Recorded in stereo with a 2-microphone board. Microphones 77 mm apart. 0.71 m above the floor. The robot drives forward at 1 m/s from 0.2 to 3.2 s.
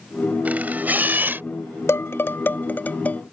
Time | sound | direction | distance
0.5 | a camera shutter | 20° right (ahead or behind) | ?
1.9 | dishes clattering | 35° left (ahead or behind) | ?